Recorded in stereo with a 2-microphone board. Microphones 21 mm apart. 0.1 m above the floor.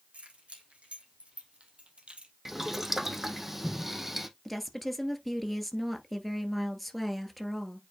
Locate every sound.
0.1 s keys jangling: 75° right (ahead or behind), 3 m; by 2.3 s 60° right (ahead or behind), 1.7 m
2.5 s boiling: 10° right (ahead or behind), 1.0 m
4.5 s a woman speaking: centre (ahead or behind), 1.5 m